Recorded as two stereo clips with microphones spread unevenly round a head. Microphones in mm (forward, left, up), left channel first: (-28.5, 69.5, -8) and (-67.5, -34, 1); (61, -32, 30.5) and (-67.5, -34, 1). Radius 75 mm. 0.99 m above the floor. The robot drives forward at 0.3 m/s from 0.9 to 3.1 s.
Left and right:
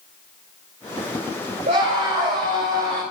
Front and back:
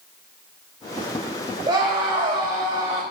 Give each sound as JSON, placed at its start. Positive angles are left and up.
{"t": 1.7, "sound": "a scream", "azimuth_deg": -120, "distance_m": 3.5}